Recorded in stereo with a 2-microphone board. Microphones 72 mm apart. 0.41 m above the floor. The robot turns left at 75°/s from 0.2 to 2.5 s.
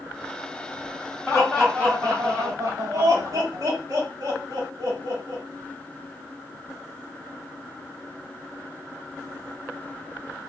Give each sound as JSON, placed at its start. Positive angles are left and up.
{"t": 1.3, "sound": "laughter", "side_deg": 20, "distance_m": 2.5}